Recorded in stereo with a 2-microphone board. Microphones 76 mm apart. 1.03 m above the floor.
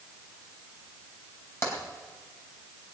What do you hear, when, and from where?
1.6 s tapping: 35° left (ahead or behind), 3.5 m